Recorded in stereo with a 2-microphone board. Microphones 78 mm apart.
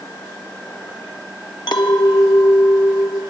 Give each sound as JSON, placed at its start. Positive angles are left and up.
{"t": 1.7, "sound": "a clink", "side_deg": 65, "distance_m": 1.1}